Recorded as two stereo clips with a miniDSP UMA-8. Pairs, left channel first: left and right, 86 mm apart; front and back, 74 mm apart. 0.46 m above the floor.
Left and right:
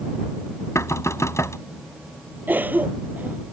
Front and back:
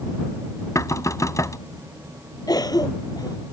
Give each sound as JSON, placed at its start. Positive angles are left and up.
{"t": 0.8, "sound": "knocking", "azimuth_deg": 40}
{"t": 2.5, "sound": "a cough", "azimuth_deg": -20}